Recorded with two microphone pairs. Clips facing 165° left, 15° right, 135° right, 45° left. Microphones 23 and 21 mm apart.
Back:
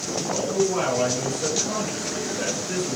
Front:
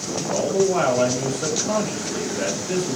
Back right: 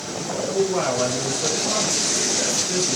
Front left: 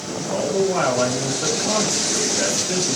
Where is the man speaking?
10° left, 1.5 m.